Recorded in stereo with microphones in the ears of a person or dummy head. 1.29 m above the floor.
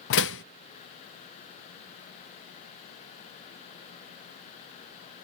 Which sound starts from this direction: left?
A door slam, at 0.1 s.